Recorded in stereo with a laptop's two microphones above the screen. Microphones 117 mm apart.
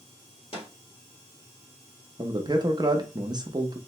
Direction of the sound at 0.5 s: 50° left (ahead or behind).